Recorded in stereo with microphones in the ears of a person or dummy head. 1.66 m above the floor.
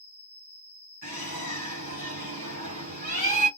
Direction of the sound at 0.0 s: 10° right (ahead or behind).